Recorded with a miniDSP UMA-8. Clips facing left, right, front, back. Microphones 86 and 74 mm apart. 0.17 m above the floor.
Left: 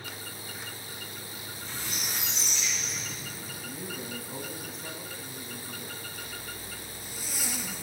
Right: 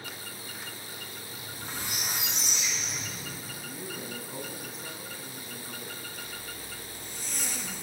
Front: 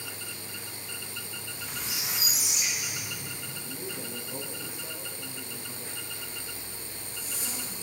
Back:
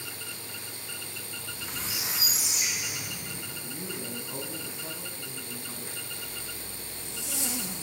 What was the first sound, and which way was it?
A squeak, 120° right.